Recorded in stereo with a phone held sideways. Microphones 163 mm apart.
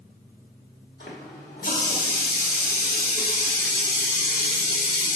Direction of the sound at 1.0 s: 65° left (ahead or behind).